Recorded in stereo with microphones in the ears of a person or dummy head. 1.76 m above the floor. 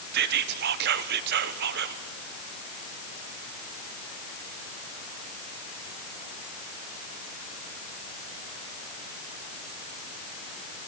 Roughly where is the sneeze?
No sneeze in this recording.